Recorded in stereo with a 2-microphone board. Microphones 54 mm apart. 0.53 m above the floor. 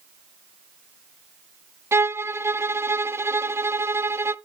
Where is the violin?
55° right (ahead or behind), 0.5 m.